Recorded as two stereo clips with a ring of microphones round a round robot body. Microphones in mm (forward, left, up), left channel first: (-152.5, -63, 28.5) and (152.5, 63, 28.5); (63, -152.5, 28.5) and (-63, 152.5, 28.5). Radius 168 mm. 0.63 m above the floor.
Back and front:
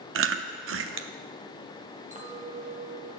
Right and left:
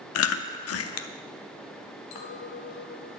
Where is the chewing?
25° right, 0.6 m.